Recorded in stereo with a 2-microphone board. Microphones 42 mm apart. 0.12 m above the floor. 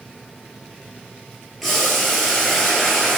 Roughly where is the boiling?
Centre.